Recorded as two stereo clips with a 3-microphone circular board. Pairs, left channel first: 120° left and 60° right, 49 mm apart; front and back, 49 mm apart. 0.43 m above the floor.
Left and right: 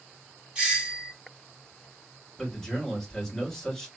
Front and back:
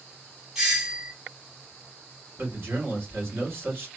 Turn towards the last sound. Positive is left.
turn(degrees=-155)